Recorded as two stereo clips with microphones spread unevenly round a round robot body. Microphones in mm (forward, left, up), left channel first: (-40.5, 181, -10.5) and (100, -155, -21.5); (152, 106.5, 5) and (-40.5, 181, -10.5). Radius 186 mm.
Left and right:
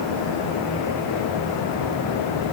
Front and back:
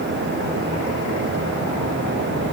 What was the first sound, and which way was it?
Only background noise.